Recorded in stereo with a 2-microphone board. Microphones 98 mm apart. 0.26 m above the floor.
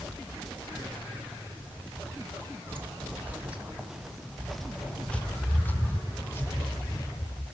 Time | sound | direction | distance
2.7 | footsteps | 20° right (ahead or behind) | 4 m